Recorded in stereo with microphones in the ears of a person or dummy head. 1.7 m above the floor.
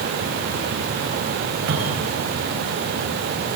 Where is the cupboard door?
80° right, 9.5 m.